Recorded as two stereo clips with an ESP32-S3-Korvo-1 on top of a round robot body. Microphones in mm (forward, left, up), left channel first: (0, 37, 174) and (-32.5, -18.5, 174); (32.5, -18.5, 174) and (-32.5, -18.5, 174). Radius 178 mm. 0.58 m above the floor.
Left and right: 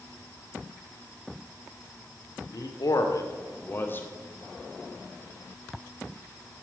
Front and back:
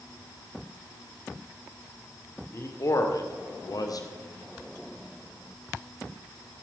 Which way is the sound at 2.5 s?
45° left.